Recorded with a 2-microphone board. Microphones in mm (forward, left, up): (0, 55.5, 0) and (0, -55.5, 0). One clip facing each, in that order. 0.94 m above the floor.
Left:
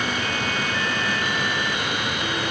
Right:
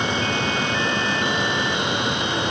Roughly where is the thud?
No thud in this recording.